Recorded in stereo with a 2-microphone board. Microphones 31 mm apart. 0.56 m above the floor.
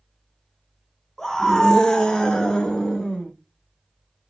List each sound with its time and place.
1.2 s a scream: 15° left (ahead or behind), 0.8 m; by 3.3 s 20° left (ahead or behind), 1.1 m